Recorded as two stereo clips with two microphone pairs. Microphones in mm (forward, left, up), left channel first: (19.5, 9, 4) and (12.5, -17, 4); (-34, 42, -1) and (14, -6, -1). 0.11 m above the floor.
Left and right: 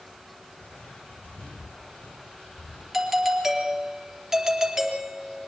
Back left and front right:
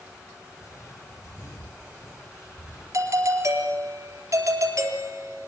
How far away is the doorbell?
About 3.5 m.